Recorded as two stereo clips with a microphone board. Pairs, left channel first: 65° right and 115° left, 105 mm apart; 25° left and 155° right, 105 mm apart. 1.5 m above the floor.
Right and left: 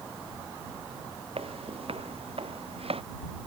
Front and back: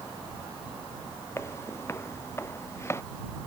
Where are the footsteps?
90° left.